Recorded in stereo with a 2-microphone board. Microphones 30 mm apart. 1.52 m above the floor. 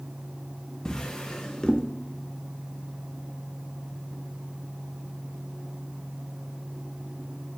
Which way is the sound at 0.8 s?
20° left (ahead or behind).